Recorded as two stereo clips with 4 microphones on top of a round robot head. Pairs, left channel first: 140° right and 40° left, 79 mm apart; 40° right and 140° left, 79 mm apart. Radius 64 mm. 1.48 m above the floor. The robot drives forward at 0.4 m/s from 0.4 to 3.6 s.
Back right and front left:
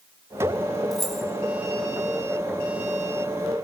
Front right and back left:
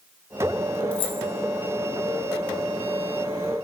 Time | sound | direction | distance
0.9 | keys jangling | 55° right | 3 m